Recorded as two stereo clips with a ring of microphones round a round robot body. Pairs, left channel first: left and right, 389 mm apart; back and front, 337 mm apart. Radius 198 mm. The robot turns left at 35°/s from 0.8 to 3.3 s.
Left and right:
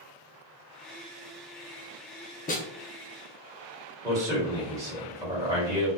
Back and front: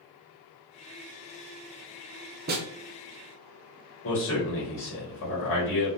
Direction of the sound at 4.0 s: 165° right.